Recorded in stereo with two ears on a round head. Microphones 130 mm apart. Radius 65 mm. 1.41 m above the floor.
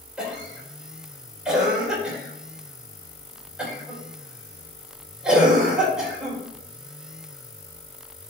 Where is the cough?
5° right (ahead or behind), 4.5 m.